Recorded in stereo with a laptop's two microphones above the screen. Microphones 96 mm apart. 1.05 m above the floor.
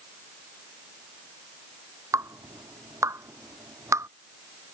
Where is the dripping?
30° right (ahead or behind).